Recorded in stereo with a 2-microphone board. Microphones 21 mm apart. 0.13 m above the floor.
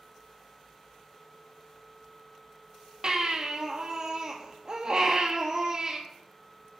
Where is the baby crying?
45° right (ahead or behind), 1.5 m.